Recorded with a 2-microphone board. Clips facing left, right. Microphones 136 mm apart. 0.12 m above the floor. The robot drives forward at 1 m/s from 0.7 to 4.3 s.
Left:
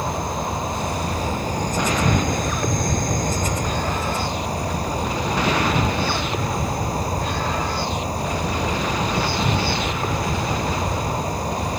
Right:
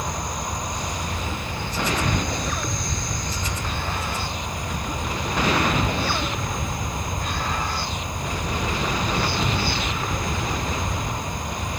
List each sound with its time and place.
0.0 s an insect: 30° left (ahead or behind); by 11.8 s 35° left (ahead or behind)